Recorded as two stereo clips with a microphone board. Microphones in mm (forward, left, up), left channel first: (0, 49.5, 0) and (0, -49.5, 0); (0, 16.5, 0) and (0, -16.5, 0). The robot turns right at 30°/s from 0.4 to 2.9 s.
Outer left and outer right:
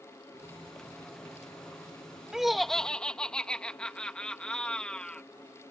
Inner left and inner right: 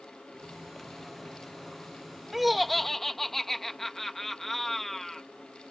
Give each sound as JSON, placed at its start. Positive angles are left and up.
{"t": 2.3, "sound": "laughter", "side_deg": -5}